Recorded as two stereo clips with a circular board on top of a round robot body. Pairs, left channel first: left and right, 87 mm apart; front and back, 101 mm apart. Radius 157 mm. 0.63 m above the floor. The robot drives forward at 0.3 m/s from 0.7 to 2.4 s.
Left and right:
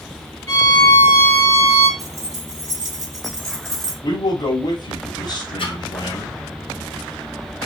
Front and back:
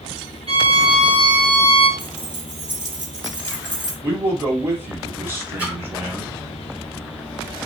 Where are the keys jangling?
145° right, 2.5 m.